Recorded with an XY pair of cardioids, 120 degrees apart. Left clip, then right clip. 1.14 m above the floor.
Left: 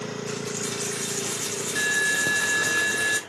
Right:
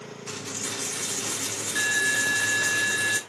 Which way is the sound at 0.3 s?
Straight ahead.